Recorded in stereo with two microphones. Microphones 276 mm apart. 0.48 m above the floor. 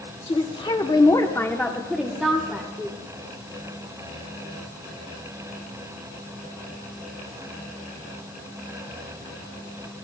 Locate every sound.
0.3 s a woman speaking: 20° left (ahead or behind), 1.1 m; by 3.0 s 10° right (ahead or behind), 1.5 m